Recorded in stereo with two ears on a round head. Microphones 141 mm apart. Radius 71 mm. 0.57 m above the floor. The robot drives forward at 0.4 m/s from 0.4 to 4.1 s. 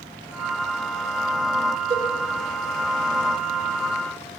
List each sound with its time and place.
1.9 s a cowbell: 35° right (ahead or behind), 2.5 m